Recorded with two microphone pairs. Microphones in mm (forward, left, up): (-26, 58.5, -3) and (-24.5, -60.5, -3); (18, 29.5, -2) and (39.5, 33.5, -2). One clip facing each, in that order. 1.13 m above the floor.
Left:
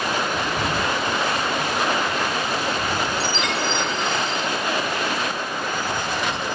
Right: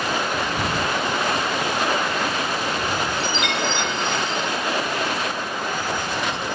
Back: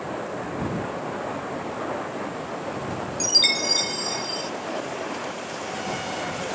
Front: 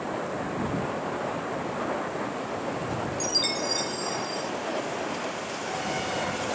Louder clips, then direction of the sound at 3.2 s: Even, back 8 dB; 140° left.